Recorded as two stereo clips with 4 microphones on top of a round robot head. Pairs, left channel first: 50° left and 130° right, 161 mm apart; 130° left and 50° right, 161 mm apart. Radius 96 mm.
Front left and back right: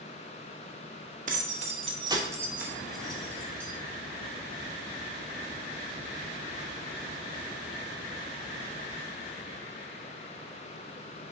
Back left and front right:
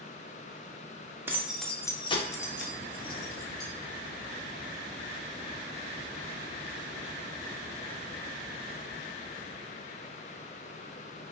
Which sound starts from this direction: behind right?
Keys jangling, at 1.3 s.